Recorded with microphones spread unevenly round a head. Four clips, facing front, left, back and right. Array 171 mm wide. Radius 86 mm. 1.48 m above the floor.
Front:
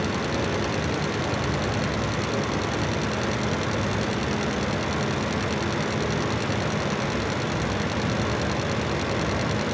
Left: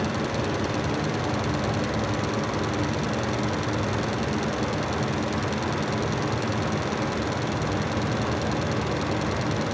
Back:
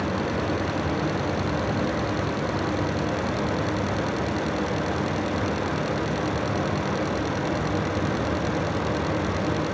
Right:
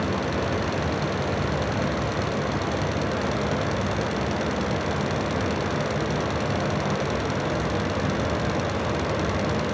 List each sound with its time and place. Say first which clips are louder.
0.0 s a fan: right 1 dB, even; 115° right, 3 m